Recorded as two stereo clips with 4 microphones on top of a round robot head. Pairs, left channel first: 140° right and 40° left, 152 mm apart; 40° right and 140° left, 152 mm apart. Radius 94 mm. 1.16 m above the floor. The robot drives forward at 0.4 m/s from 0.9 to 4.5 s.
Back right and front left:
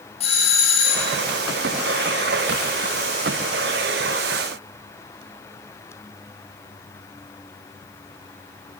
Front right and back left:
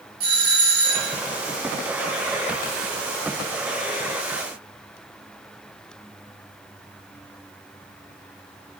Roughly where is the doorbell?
Behind.